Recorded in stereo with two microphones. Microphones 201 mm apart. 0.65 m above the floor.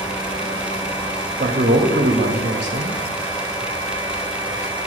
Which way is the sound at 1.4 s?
50° right (ahead or behind).